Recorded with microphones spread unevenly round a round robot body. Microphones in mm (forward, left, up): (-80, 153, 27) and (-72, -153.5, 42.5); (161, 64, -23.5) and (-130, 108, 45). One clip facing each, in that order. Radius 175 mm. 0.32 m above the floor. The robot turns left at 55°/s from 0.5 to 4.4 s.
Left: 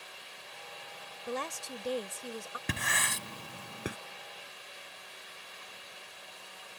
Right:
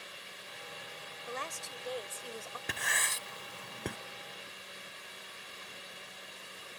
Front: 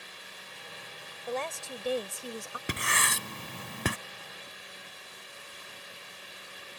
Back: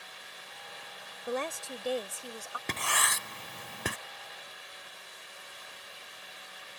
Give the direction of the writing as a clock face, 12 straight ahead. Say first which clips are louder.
Left 6 dB, front 2 dB; 10 o'clock.